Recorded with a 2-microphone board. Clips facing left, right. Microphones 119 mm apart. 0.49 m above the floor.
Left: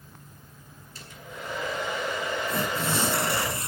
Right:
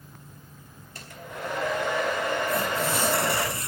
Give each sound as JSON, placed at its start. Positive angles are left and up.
{"t": 0.9, "sound": "a hair dryer", "side_deg": -60, "distance_m": 4.5}
{"t": 2.5, "sound": "tearing paper", "side_deg": 25, "distance_m": 2.5}